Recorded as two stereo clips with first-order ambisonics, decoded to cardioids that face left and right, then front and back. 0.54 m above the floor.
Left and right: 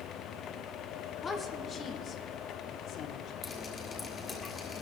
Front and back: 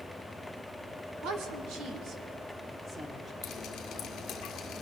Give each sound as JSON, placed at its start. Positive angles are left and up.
{"t": 1.2, "sound": "a woman speaking", "azimuth_deg": 155, "distance_m": 1.6}
{"t": 3.4, "sound": "dripping", "azimuth_deg": 30, "distance_m": 1.7}